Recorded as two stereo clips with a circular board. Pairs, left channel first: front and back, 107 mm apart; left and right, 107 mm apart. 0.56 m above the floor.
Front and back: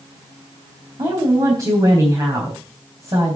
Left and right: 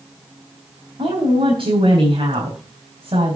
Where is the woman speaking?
130° right, 3.5 m.